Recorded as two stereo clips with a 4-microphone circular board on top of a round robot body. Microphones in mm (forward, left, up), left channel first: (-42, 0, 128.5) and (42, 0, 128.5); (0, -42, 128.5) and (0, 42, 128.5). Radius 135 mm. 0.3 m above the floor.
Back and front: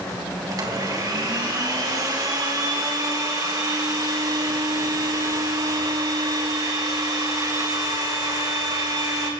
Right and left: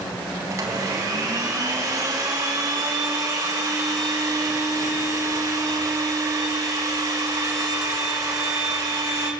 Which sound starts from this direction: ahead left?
A blender, at 0.5 s.